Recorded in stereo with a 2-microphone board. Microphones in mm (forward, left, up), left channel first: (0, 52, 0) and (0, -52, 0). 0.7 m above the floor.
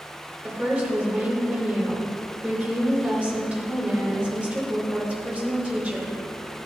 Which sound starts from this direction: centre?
A woman speaking, at 0.4 s.